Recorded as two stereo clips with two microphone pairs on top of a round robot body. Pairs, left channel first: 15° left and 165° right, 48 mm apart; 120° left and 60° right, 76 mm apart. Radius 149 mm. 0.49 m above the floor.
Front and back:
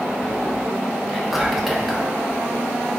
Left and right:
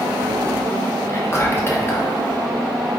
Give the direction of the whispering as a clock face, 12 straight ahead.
8 o'clock.